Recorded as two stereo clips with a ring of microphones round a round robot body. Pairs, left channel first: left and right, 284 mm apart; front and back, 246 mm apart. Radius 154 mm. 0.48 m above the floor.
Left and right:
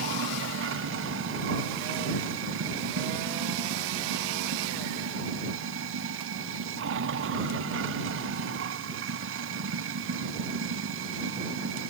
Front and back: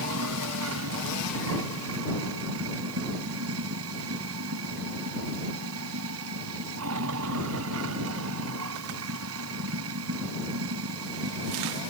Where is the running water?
135° right.